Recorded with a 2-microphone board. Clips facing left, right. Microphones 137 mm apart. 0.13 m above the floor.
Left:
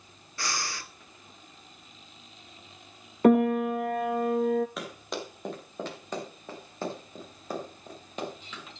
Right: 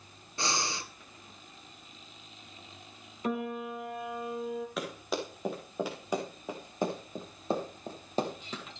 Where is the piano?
65° left (ahead or behind), 0.6 m.